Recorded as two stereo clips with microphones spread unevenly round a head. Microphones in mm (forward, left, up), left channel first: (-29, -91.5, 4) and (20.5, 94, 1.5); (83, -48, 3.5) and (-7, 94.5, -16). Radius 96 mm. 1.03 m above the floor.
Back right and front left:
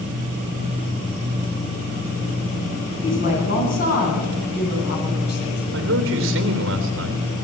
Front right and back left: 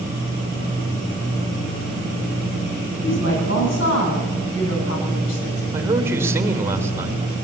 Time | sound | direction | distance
3.0 | a woman speaking | 55° right | 10 m
5.7 | a man speaking | 45° left | 3 m